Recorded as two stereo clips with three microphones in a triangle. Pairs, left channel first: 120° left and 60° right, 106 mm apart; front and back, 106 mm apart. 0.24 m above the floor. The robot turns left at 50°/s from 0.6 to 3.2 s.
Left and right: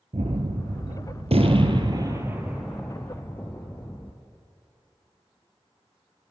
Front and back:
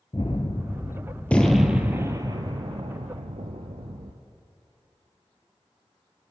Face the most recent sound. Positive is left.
turn(degrees=-175)